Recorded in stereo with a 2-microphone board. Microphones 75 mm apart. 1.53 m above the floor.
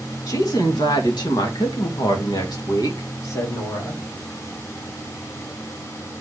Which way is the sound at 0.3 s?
60° left (ahead or behind).